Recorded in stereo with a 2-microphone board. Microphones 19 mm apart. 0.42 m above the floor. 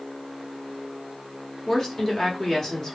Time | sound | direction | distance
1.7 | a woman speaking | 30° left (ahead or behind) | 1.4 m